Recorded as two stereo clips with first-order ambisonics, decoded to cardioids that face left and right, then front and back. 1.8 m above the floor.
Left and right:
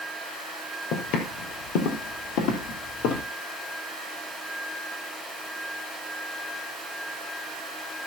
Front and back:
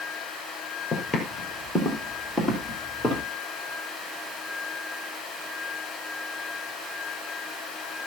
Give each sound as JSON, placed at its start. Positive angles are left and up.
{"t": 0.9, "sound": "footsteps", "azimuth_deg": 75, "distance_m": 2.5}